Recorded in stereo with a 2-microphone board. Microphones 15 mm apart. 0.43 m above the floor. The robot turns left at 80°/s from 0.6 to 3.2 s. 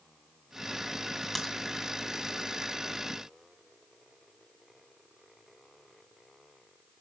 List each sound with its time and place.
1.4 s a crack: 5° left (ahead or behind), 1.9 m; by 1.5 s 10° right (ahead or behind), 1.9 m